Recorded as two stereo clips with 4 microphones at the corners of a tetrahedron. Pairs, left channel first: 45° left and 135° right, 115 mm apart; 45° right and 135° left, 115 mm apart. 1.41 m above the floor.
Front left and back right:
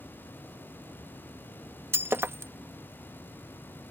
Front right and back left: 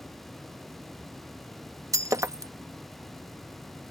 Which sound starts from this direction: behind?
Breaking glass, at 1.9 s.